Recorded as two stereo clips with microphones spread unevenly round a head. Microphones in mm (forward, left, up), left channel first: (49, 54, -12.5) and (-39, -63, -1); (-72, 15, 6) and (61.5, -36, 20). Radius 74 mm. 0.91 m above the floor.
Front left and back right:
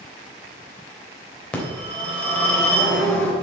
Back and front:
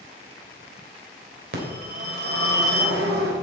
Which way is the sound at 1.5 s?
30° right.